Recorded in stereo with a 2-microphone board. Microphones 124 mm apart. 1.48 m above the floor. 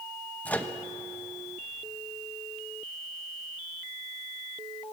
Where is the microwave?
10° left (ahead or behind), 0.9 m.